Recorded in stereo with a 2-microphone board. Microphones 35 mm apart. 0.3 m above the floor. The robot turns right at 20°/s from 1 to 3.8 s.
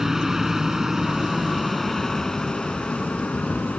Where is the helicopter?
10° right; by 3.8 s 45° left.